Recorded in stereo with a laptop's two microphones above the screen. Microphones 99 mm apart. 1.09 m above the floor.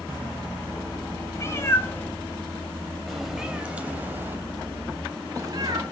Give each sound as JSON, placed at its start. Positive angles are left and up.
{"t": 1.4, "sound": "a cat meowing", "side_deg": 30, "distance_m": 3.5}